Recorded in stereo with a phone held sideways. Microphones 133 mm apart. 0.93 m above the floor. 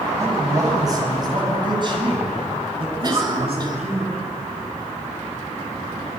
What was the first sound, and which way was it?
A man speaking, 20° right (ahead or behind).